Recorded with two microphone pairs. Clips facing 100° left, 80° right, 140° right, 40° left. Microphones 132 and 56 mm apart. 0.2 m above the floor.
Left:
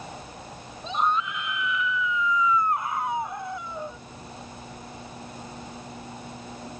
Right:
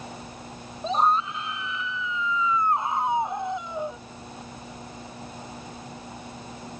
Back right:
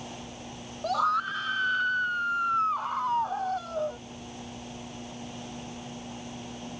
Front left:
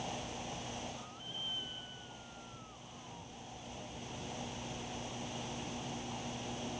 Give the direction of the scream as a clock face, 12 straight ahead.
4 o'clock.